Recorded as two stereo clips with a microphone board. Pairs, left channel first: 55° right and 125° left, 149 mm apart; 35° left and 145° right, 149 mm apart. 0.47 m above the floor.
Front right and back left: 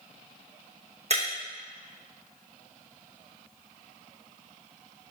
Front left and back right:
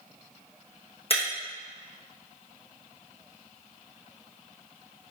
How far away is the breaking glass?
About 3 m.